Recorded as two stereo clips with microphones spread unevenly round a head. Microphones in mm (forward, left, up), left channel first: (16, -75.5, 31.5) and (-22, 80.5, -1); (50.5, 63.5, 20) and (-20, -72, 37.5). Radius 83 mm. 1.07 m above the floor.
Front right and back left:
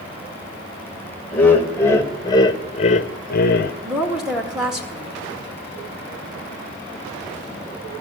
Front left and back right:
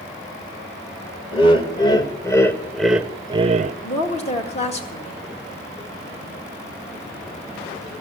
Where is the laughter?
10° left, 1.9 m; by 3.7 s 95° right, 0.7 m.